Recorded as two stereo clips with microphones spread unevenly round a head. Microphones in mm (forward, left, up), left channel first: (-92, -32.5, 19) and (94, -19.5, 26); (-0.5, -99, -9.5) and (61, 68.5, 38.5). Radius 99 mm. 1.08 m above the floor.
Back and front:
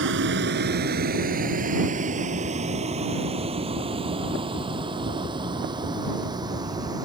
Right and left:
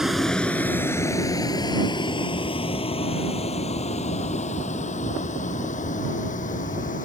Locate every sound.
0.0 s a vehicle: 15° right; by 7.1 s 65° right